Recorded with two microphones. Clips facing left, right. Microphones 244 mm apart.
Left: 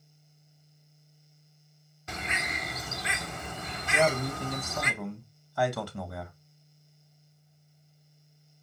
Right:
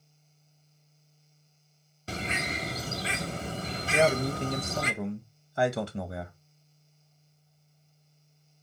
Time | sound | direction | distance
2.1 | a bird | 35° right (ahead or behind) | 0.9 m
3.9 | a man speaking | 25° right (ahead or behind) | 1.4 m